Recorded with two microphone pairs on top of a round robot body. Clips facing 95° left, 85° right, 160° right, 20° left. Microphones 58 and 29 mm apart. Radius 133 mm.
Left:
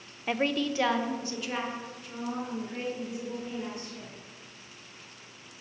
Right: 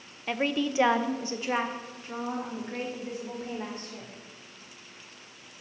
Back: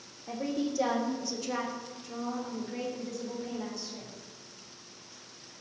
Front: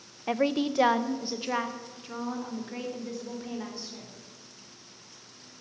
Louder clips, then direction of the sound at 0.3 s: Even, front 6 dB; 10° left.